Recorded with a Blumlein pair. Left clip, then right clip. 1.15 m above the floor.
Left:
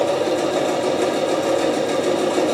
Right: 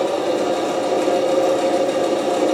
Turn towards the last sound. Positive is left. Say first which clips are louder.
# even
turn(degrees=10)